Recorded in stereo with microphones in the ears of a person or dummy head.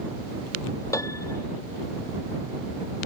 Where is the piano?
15° left (ahead or behind).